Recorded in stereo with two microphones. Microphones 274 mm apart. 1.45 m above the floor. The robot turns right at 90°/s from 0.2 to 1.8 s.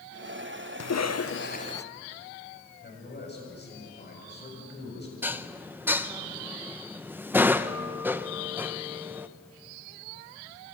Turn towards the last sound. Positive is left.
turn(degrees=-5)  # may be behind; listen again after turning